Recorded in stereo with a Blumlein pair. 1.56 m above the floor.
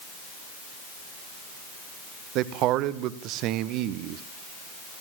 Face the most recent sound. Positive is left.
turn(degrees=-40)